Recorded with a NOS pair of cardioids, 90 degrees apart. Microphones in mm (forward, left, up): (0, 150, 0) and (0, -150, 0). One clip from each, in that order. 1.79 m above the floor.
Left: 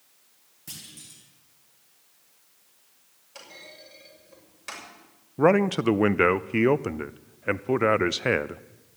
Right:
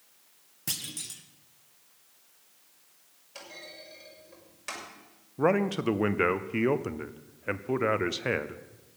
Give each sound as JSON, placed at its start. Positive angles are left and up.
{"t": 0.7, "sound": "a clunk", "azimuth_deg": -60, "distance_m": 1.7}
{"t": 3.4, "sound": "a clunk", "azimuth_deg": 0, "distance_m": 6.5}
{"t": 5.4, "sound": "a man speaking", "azimuth_deg": 20, "distance_m": 0.5}